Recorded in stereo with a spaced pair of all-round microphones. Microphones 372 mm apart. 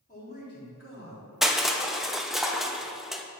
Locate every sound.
0.1 s a man speaking: 20° left (ahead or behind), 3.5 m; by 1.3 s 40° left (ahead or behind), 4 m
1.4 s crushing: centre (ahead or behind), 0.7 m